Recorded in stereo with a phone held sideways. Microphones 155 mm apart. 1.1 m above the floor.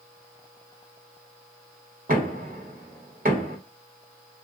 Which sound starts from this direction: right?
Knocking, at 2.1 s.